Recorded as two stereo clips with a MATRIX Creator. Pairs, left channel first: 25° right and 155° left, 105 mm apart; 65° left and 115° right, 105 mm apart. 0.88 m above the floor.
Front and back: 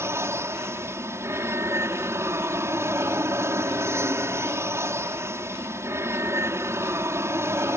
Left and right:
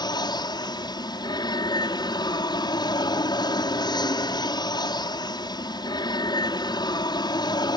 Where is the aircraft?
100° left.